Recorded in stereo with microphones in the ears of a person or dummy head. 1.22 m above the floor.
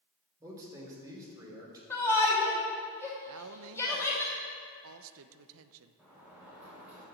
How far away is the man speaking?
About 3 m.